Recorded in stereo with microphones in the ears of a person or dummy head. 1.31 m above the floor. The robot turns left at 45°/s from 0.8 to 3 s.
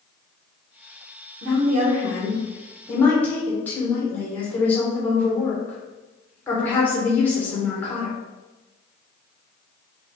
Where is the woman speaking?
120° right, 1.3 m; by 8.1 s 170° left, 1.3 m.